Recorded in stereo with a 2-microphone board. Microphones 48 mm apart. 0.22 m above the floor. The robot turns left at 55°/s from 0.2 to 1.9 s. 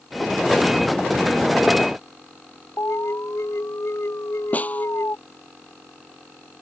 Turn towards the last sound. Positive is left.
turn(degrees=30)  # may be behind; listen again after turning